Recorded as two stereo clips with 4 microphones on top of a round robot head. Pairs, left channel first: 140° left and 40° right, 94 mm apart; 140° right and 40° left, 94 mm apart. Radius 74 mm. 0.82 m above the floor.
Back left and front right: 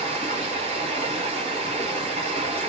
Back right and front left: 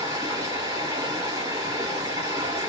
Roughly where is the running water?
Ahead.